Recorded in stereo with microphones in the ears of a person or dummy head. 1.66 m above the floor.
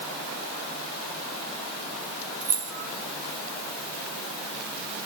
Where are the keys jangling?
35° right (ahead or behind), 1.7 m.